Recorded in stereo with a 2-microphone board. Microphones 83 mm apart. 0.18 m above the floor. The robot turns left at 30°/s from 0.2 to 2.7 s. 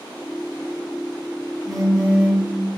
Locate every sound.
1.6 s a phone buzzing: centre (ahead or behind), 0.8 m; by 2.4 s 10° left (ahead or behind), 0.8 m